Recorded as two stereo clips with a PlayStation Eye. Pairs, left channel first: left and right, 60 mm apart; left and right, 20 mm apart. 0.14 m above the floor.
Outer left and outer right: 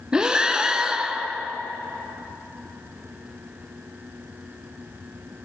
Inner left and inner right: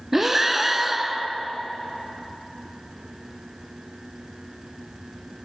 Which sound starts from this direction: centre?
Breathing, at 0.1 s.